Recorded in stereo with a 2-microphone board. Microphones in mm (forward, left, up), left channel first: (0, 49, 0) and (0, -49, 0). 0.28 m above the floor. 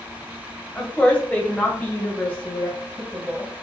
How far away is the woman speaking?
About 1.3 m.